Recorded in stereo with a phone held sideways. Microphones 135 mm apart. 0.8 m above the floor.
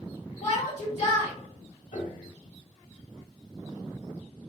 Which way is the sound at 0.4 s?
60° left (ahead or behind).